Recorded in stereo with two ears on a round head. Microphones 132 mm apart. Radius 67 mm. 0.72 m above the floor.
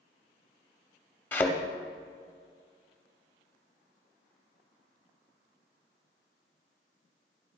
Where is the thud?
15° left (ahead or behind), 0.8 m.